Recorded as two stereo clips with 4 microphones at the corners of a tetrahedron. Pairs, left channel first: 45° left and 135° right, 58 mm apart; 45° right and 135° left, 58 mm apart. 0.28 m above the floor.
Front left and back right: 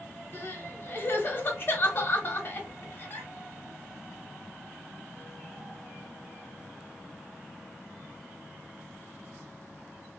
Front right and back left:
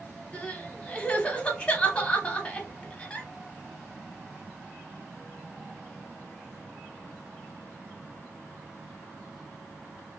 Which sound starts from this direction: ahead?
Crying, at 0.3 s.